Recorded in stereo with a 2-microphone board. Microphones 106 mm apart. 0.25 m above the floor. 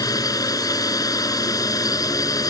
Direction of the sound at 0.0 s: 35° left (ahead or behind).